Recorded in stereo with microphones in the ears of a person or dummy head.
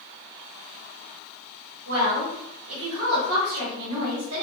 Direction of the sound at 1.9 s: 65° right (ahead or behind).